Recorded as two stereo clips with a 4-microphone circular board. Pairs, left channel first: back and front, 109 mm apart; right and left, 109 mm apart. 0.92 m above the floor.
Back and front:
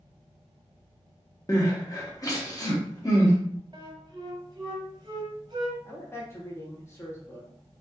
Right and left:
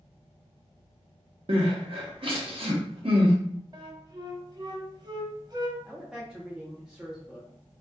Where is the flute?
45° left, 0.6 m.